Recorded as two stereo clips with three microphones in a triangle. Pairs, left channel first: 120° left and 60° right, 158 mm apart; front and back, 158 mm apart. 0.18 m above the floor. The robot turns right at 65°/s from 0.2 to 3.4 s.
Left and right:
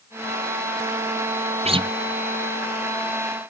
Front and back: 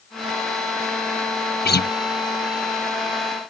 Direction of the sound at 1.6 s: 10° right.